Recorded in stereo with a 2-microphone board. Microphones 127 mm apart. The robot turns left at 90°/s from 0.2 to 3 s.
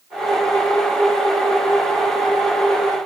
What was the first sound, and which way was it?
Only background noise.